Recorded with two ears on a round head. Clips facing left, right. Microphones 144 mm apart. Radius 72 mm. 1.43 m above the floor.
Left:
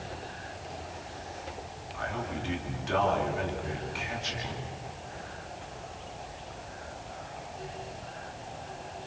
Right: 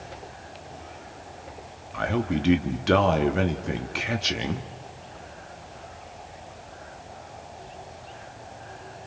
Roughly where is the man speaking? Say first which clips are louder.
Right 9 dB; right.